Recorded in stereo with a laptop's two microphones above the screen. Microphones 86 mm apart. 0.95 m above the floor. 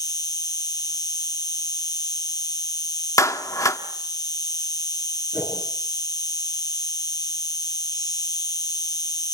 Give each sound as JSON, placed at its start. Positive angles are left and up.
{"t": 0.0, "sound": "an insect", "side_deg": 45, "distance_m": 1.0}
{"t": 3.2, "sound": "a clap", "side_deg": 40, "distance_m": 1.2}
{"t": 5.3, "sound": "a whoosh", "side_deg": -25, "distance_m": 7.5}